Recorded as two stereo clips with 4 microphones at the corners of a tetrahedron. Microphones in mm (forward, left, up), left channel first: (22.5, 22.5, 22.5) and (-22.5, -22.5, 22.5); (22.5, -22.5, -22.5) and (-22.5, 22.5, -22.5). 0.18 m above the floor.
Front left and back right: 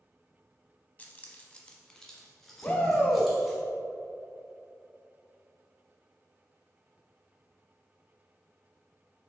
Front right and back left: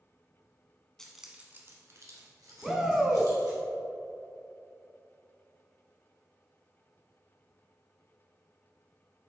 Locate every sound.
1.0 s keys jangling: 20° left, 0.9 m; by 3.6 s 135° left, 3 m
2.6 s a shout: 60° left, 1.0 m